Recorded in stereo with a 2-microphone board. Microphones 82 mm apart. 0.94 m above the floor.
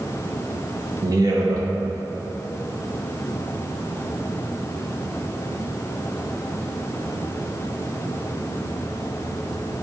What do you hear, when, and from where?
1.0 s a man speaking: 45° right (ahead or behind), 1.1 m